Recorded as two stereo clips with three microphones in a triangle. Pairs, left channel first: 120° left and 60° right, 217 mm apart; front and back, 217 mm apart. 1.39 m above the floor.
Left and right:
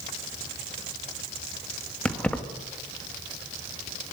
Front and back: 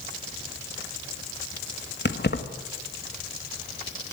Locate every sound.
2.0 s keys jangling: 35° left, 1.5 m